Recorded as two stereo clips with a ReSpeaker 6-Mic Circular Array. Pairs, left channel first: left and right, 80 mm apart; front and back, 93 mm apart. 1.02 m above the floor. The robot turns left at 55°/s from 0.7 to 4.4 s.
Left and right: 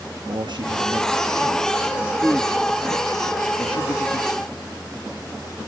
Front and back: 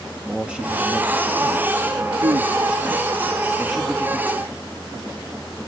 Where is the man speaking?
100° right, 1.1 m; by 4.5 s 55° left, 1.1 m.